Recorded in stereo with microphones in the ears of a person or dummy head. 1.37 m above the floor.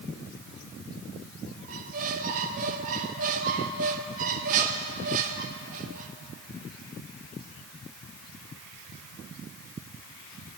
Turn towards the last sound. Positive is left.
turn(degrees=-45)  # may be behind; listen again after turning